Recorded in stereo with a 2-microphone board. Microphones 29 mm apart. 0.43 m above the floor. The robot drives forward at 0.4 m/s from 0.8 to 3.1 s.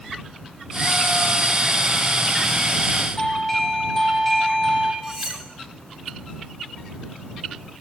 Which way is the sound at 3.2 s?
10° left (ahead or behind).